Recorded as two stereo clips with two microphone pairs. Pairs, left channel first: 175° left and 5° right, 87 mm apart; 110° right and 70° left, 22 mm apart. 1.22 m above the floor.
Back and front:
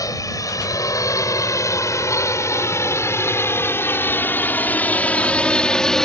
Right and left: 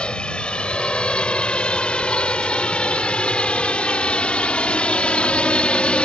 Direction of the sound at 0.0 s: 140° right.